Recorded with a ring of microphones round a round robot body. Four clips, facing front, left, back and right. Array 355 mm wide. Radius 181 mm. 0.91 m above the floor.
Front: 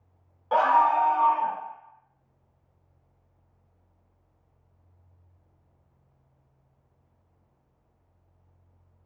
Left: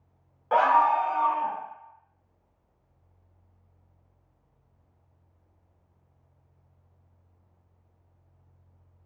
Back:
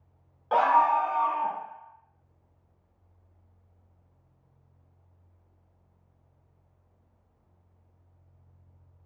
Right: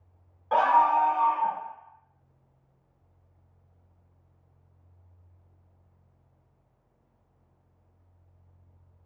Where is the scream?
120° left, 0.7 m; by 1.6 s straight ahead, 1.0 m.